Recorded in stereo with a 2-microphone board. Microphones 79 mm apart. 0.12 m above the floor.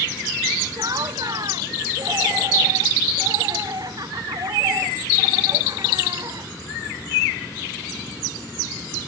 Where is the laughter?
50° right (ahead or behind).